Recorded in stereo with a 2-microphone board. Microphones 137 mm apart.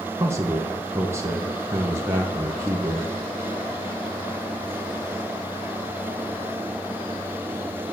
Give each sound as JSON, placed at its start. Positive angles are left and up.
{"t": 0.2, "sound": "a man speaking", "side_deg": -20, "distance_m": 2.0}